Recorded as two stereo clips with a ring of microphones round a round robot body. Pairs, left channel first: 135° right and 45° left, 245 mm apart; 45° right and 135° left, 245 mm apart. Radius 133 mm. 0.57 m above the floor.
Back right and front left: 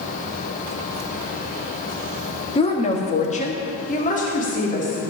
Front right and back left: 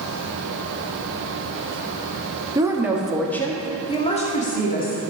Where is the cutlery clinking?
No cutlery clinking in this recording.